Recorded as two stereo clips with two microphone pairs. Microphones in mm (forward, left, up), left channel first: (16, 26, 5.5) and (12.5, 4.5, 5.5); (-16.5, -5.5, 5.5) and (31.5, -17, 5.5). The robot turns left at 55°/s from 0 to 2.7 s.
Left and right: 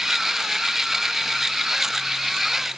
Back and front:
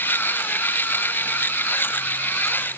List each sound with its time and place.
Only background noise.